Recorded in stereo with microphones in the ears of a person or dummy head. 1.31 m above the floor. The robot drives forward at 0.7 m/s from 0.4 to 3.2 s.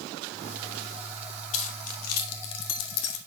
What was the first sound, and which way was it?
Keys jangling, 45° left (ahead or behind).